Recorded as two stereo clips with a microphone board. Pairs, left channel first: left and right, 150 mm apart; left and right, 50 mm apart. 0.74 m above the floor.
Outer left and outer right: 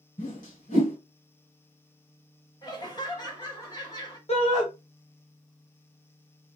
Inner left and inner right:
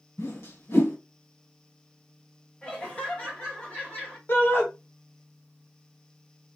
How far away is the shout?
About 0.9 m.